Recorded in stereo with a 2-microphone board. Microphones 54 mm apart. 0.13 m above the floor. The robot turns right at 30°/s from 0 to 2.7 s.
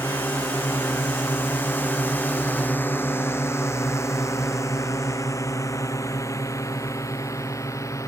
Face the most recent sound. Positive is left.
turn(degrees=75)  # may be behind; listen again after turning